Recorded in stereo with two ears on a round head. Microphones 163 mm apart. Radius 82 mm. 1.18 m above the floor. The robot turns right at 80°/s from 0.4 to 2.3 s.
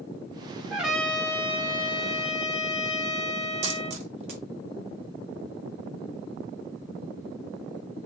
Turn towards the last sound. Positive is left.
turn(degrees=-35)  # may be behind; listen again after turning